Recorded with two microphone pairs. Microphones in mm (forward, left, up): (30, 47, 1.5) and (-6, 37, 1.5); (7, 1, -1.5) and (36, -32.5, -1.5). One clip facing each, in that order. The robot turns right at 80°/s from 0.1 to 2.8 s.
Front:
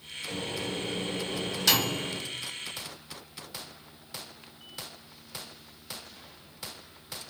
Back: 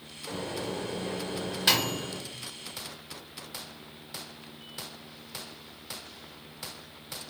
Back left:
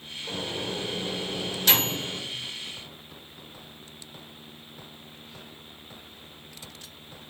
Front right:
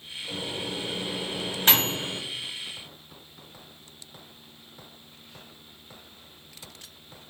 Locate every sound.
0.3 s a microwave: 150° left, 0.9 m; by 2.2 s 55° right, 0.9 m